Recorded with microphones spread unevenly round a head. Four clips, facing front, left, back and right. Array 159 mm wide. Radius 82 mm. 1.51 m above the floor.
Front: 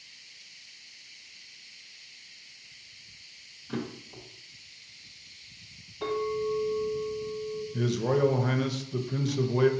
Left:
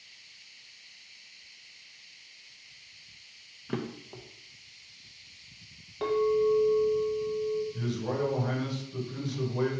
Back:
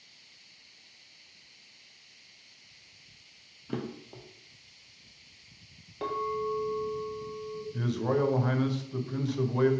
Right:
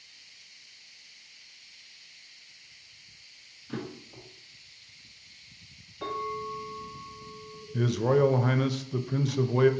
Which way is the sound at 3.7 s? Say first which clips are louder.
Left 3 dB, front 1 dB; 125° left.